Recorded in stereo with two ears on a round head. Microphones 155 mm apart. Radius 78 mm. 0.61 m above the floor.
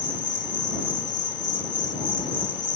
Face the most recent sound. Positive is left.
turn(degrees=25)  # may be behind; listen again after turning